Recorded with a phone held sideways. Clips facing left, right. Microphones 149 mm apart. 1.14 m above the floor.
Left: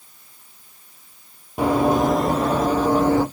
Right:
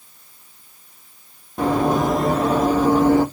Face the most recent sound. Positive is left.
turn(degrees=-15)  # may be behind; listen again after turning